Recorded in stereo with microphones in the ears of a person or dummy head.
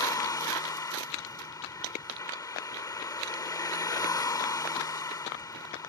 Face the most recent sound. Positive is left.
turn(degrees=20)  # may be behind; listen again after turning